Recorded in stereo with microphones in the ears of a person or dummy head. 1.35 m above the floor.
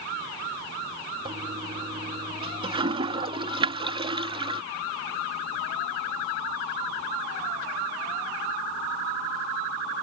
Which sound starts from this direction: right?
A toilet flushing, at 1.2 s.